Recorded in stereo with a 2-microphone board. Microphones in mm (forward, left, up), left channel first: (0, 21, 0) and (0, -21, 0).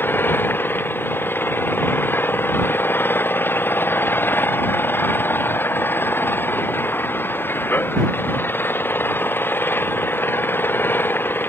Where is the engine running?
60° left (ahead or behind).